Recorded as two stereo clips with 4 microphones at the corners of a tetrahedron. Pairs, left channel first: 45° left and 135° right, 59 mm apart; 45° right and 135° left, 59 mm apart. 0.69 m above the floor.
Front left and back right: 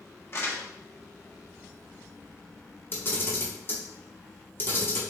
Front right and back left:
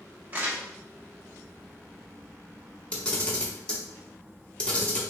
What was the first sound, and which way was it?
Crumpling, 80° left.